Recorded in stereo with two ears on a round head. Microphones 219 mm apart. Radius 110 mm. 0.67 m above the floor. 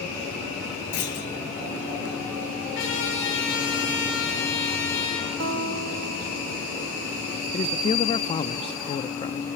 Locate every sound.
0.9 s a clunk: 65° left (ahead or behind), 4.5 m
2.8 s a trumpet: 55° left (ahead or behind), 7.5 m
5.4 s a guitar: 55° right (ahead or behind), 1.3 m
7.5 s a man speaking: 20° left (ahead or behind), 0.6 m